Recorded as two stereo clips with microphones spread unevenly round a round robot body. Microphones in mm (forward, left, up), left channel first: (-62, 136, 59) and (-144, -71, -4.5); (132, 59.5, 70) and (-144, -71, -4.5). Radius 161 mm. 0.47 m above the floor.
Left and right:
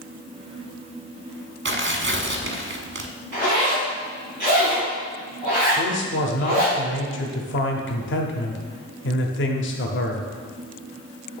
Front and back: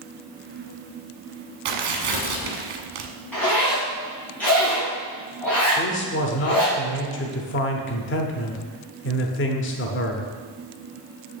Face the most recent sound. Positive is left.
turn(degrees=70)